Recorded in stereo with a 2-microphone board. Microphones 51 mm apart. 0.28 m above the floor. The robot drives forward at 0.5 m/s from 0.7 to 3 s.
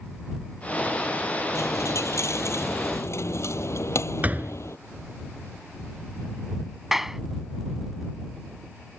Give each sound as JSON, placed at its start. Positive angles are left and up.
{"t": 1.6, "sound": "a dropped coin", "side_deg": 75}
{"t": 4.2, "sound": "a door slam", "side_deg": -30}
{"t": 6.9, "sound": "a clap", "side_deg": -5}